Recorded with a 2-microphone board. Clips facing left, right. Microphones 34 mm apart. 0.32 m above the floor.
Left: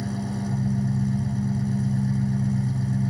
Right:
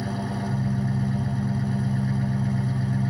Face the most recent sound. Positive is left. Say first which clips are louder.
# even
turn(degrees=-25)  # may be behind; listen again after turning